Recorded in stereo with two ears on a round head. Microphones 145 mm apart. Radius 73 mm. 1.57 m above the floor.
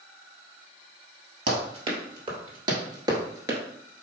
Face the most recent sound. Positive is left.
turn(degrees=-15)  # may be behind; listen again after turning